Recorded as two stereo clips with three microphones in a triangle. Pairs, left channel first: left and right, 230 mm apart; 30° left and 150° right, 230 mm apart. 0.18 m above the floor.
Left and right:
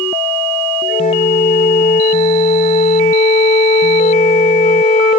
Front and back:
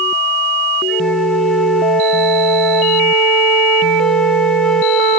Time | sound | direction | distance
0.9 | a flute | 115° left | 2.0 m